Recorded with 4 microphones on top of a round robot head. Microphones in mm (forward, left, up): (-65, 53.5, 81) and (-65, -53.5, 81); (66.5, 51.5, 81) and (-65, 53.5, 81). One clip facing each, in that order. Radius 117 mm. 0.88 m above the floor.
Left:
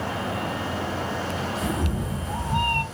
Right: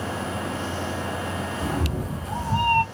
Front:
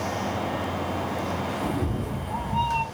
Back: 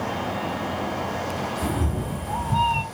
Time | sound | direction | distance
1.6 | a cat meowing | 140° right | 1.7 m